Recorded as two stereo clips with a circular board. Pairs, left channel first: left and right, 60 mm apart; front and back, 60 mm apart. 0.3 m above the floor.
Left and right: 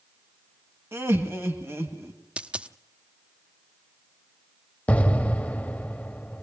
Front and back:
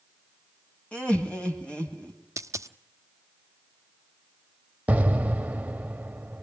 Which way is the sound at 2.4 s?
160° right.